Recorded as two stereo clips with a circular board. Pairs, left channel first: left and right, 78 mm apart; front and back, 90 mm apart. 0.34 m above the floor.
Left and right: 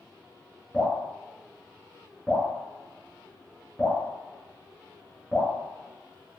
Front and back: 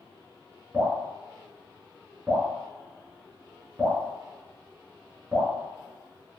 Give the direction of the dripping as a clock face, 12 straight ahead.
5 o'clock.